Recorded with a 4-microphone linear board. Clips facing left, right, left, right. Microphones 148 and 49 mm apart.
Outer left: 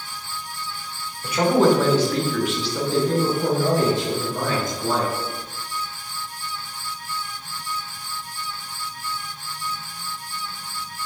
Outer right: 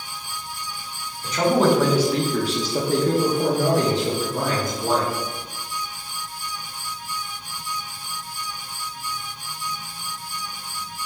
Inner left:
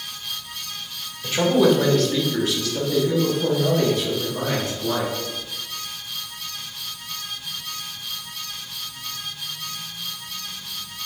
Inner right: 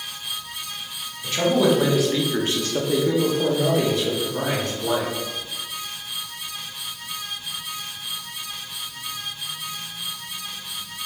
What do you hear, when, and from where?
1.2 s a man speaking: 10° left (ahead or behind), 1.3 m; by 5.1 s 65° right (ahead or behind), 2 m